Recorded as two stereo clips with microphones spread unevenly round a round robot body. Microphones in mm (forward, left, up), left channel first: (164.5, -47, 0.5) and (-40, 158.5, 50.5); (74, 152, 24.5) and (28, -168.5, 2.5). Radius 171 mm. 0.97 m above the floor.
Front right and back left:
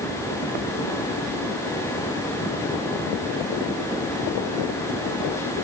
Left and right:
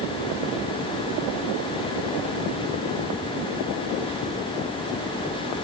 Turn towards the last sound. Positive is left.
No sound to turn to.